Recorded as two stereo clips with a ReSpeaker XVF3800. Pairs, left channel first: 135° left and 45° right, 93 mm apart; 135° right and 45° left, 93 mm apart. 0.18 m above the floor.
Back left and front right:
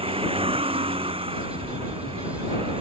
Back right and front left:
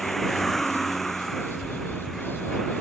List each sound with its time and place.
0.0 s a vehicle: 45° right